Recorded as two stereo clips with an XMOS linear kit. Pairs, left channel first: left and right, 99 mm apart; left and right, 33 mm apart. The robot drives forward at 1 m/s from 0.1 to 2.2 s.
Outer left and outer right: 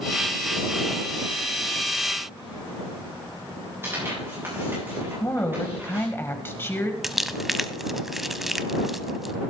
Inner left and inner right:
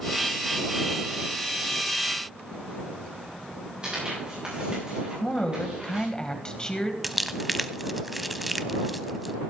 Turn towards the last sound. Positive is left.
turn(degrees=0)  # may be behind; listen again after turning